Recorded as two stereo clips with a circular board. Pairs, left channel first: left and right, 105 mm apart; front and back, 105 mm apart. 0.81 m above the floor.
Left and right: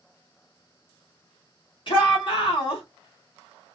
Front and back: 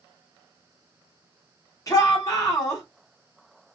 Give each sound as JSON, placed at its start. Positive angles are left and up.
{"t": 1.9, "sound": "a shout", "azimuth_deg": 60, "distance_m": 1.8}